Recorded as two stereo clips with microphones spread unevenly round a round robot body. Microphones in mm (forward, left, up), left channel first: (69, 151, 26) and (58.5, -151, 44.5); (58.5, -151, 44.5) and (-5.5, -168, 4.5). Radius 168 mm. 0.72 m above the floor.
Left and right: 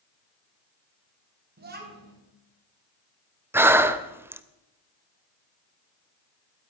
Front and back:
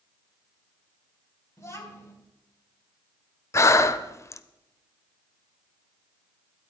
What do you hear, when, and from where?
1.6 s a child speaking: 35° right, 5 m
3.5 s breathing: 10° right, 0.8 m